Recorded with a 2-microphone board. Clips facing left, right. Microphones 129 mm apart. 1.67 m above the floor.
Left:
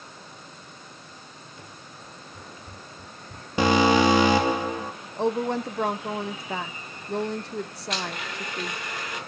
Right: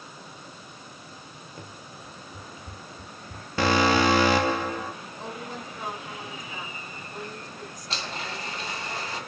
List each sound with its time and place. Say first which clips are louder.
1.6 s running footsteps: right 3 dB; 45° right (ahead or behind), 2.5 m; by 4.4 s 10° left (ahead or behind), 3 m
3.6 s an alarm: left 3 dB; 15° left (ahead or behind), 2.5 m
5.2 s a woman speaking: left 16 dB; 65° left (ahead or behind), 0.9 m
7.9 s a blender: left 1 dB; 30° right (ahead or behind), 1.9 m